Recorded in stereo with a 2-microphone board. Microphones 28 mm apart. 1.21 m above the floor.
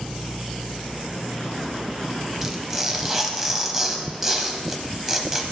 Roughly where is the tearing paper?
Centre.